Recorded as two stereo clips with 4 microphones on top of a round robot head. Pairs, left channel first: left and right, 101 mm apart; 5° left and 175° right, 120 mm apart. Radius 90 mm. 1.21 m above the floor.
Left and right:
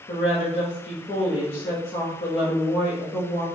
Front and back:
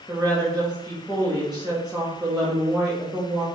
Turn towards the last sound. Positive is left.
turn(degrees=100)